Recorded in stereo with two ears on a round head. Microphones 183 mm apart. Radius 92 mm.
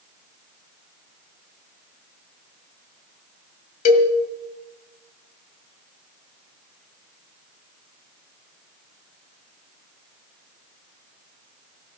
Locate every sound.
3.9 s a cowbell: 45° left (ahead or behind), 1.7 m